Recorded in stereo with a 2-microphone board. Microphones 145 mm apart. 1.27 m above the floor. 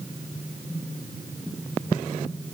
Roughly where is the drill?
No drill in this recording.